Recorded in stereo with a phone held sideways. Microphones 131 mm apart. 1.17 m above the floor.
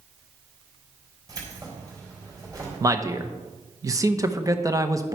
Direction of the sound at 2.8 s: 25° right (ahead or behind).